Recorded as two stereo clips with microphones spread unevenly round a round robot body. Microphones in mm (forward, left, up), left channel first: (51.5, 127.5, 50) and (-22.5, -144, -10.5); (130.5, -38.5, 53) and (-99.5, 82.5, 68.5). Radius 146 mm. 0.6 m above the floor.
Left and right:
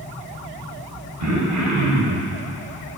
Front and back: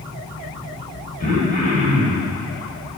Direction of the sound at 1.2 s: 90° right.